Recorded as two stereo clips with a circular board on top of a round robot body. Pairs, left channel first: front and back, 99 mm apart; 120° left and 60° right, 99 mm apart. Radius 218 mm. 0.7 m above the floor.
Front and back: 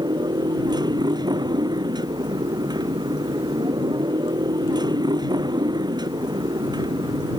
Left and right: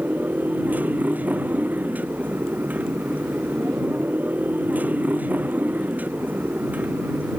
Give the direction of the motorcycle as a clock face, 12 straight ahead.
4 o'clock.